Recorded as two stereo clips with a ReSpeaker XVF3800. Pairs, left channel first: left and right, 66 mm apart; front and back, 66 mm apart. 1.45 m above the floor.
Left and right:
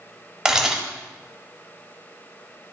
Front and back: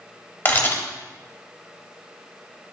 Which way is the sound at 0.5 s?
20° right.